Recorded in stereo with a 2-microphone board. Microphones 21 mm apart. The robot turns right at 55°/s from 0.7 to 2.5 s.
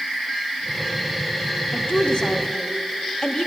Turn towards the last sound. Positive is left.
turn(degrees=145)